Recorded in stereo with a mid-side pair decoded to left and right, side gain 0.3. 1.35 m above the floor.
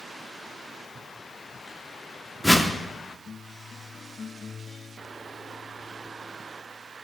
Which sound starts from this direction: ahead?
A whoosh, at 2.4 s.